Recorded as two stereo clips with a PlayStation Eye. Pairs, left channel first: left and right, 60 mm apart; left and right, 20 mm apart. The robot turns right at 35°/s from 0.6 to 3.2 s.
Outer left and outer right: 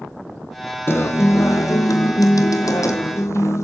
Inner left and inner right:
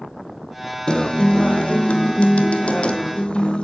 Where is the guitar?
45° left, 1.6 m; by 3.6 s 125° left, 1.6 m.